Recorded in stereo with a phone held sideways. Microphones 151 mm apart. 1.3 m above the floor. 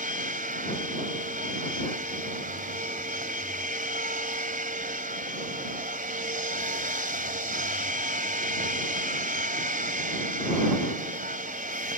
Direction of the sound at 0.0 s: 65° right (ahead or behind).